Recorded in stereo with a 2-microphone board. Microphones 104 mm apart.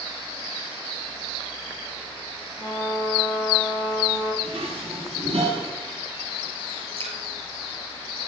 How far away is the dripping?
About 5 m.